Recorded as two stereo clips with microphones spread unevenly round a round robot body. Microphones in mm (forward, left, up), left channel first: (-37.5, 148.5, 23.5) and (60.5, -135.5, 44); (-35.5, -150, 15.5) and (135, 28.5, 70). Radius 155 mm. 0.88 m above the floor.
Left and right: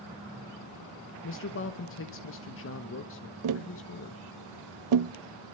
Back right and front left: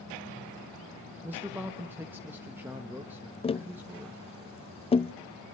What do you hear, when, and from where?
1.2 s a man speaking: 140° left, 1.3 m
3.4 s tapping: 80° right, 0.6 m